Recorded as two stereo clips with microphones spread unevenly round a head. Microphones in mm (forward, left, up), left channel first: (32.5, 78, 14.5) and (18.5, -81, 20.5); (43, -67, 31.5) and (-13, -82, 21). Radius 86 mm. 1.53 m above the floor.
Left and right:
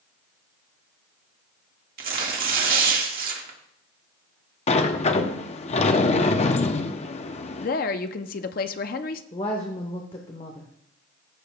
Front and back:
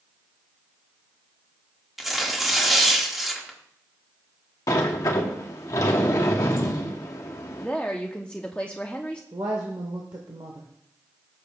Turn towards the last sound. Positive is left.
turn(degrees=145)